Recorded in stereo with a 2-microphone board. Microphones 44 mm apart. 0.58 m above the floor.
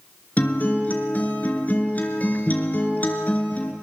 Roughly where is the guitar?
Left.